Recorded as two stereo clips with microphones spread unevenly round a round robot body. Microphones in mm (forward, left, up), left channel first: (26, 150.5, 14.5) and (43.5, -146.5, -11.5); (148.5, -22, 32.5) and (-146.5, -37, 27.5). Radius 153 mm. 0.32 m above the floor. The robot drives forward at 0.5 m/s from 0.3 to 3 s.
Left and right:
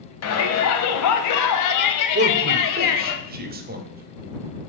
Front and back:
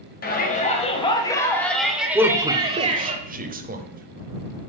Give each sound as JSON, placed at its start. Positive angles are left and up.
{"t": 0.2, "sound": "a shout", "azimuth_deg": 60, "distance_m": 1.7}
{"t": 2.1, "sound": "a man speaking", "azimuth_deg": -95, "distance_m": 1.1}